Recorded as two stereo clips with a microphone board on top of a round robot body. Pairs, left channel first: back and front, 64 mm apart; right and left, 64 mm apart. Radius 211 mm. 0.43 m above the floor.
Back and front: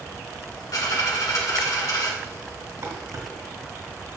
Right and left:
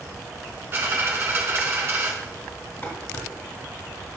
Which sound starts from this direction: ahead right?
Dishes clattering, at 2.8 s.